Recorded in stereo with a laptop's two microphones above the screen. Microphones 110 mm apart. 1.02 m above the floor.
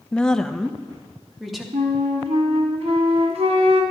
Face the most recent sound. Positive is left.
turn(degrees=-60)  # may be behind; listen again after turning